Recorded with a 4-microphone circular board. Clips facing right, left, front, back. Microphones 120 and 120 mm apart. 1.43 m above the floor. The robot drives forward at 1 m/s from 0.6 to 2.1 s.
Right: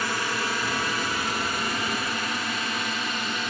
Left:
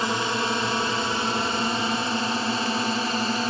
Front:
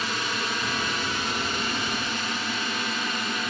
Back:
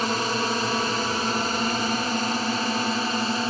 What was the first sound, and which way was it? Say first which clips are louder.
A drone: left 3 dB, back 5 dB; 150° left.